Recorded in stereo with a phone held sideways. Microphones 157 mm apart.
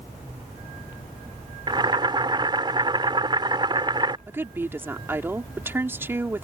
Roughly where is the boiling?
Right.